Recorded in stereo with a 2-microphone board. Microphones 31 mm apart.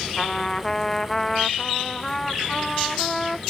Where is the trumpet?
15° left (ahead or behind).